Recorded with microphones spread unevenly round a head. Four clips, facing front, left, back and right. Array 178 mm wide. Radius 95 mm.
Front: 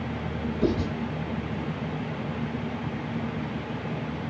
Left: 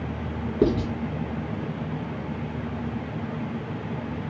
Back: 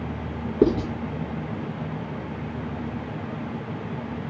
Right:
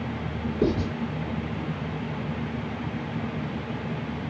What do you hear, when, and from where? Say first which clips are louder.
0.6 s writing: left 3 dB, back 6 dB; 170° left, 7.5 m